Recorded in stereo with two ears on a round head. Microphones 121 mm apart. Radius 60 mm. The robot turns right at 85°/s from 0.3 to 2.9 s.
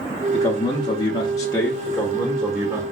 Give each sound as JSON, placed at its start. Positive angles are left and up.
{"t": 0.3, "sound": "a man speaking", "azimuth_deg": 40, "distance_m": 0.6}
{"t": 1.9, "sound": "a man speaking", "side_deg": 0, "distance_m": 1.2}